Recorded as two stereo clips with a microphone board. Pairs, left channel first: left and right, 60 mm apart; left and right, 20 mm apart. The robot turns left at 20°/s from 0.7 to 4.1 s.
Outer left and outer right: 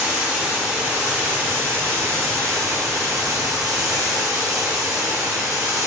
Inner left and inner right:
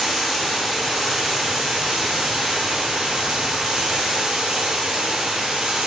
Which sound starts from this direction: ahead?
Running water, at 0.0 s.